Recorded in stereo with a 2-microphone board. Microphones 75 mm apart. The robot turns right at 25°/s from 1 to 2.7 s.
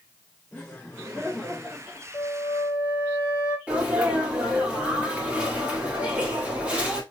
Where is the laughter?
15° left (ahead or behind), 3 m; by 2.0 s 10° right (ahead or behind), 3 m.